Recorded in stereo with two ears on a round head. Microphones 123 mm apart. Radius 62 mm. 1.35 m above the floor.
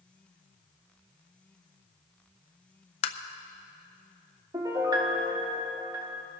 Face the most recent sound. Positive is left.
turn(degrees=-25)  # may be behind; listen again after turning